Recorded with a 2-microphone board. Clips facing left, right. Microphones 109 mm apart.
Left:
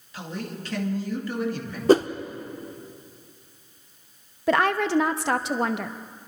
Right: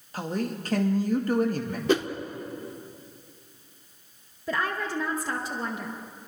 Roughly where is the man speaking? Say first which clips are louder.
Right 4 dB; right.